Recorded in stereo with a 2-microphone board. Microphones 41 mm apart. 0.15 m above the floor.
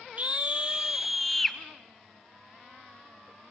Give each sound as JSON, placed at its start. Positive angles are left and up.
{"t": 0.2, "sound": "a scream", "side_deg": -35, "distance_m": 1.4}